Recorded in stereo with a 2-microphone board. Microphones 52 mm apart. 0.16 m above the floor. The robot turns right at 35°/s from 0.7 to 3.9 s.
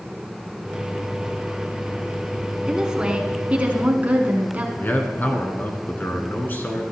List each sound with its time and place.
2.7 s a woman speaking: 160° right, 1.7 m; by 4.7 s 120° right, 1.7 m
4.8 s a man speaking: 40° left (ahead or behind), 1.7 m